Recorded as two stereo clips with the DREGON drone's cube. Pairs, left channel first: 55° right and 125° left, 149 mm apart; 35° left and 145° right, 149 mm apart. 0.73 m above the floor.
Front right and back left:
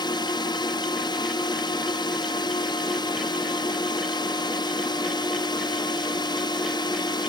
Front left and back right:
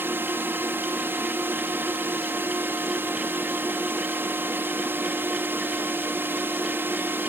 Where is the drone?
80° right.